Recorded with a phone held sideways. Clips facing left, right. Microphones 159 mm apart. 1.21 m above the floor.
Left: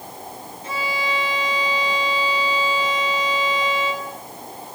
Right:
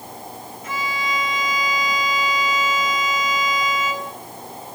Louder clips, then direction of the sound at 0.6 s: Left 1 dB; 30° left (ahead or behind).